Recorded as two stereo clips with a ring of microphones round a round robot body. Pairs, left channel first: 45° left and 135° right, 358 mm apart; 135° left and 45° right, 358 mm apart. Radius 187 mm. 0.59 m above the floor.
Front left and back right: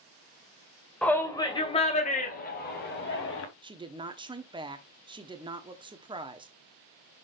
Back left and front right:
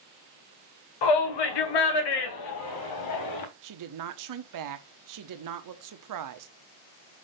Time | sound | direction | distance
1.0 | a shout | 130° left | 2 m
3.6 | a woman speaking | 60° right | 1.1 m